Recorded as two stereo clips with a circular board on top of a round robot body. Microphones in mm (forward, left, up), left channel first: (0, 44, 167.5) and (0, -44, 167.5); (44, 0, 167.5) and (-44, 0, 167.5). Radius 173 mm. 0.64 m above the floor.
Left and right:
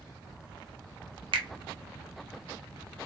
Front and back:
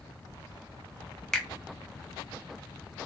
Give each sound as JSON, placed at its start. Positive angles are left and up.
{"t": 1.3, "sound": "a finger snap", "azimuth_deg": -85, "distance_m": 0.7}